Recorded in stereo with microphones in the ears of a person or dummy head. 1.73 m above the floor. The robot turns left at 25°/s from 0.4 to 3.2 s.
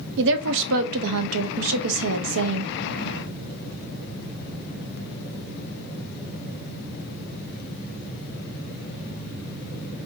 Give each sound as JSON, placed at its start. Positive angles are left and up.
{"t": 0.2, "sound": "a woman speaking", "azimuth_deg": -65, "distance_m": 0.6}